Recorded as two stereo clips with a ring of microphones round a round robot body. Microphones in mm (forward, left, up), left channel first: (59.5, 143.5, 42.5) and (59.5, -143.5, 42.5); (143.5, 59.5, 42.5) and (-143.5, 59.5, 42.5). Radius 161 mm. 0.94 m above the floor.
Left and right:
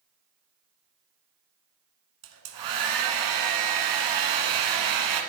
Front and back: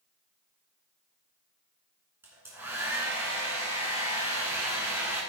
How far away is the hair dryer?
About 1.6 m.